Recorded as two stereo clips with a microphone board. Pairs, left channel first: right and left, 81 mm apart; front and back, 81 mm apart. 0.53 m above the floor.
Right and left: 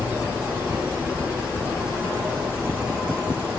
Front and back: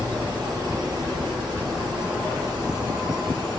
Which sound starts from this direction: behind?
An insect, at 0.0 s.